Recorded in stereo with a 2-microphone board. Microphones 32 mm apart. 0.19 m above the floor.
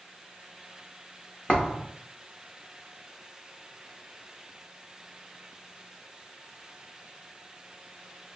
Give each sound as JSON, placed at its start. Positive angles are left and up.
{"t": 1.5, "sound": "a thud", "side_deg": 35, "distance_m": 1.2}